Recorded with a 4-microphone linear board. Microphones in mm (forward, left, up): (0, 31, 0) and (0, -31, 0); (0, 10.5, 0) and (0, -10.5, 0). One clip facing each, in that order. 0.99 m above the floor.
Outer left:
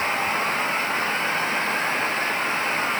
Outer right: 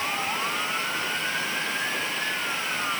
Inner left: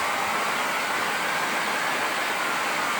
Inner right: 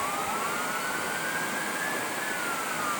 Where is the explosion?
I don't hear an explosion.